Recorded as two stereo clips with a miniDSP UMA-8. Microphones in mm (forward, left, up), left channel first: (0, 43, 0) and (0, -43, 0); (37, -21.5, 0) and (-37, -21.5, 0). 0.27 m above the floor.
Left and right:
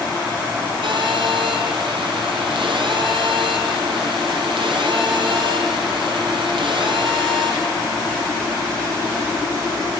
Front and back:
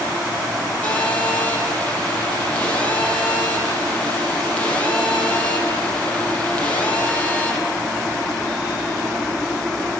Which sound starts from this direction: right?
A phone buzzing, at 0.8 s.